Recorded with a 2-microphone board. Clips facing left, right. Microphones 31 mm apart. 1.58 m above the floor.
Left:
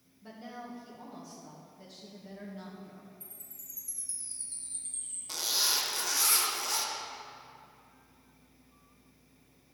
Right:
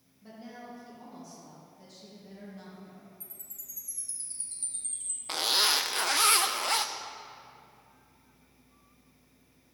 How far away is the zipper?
About 0.6 m.